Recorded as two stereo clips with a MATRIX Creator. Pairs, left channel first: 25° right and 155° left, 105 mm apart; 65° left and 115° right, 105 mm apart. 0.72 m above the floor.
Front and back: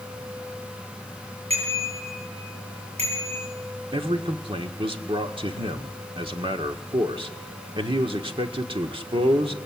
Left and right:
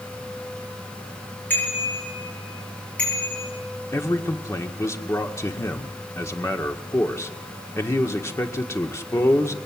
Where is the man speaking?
130° left, 1.7 m.